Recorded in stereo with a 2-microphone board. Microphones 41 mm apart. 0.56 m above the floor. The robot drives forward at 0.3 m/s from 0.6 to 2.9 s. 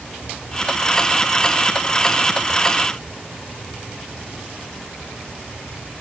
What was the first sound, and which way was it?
Only background noise.